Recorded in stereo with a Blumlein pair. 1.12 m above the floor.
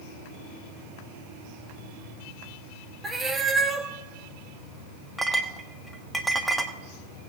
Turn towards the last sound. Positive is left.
turn(degrees=0)